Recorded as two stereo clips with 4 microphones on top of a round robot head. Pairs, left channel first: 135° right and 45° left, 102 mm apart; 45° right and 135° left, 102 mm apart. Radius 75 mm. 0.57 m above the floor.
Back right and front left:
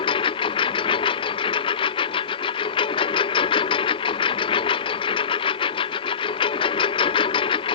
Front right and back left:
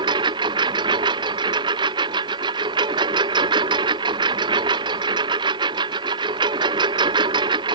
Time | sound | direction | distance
0.0 | a lawn mower | 175° right | ?